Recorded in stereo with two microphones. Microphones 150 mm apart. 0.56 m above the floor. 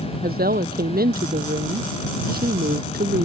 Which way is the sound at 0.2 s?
85° right.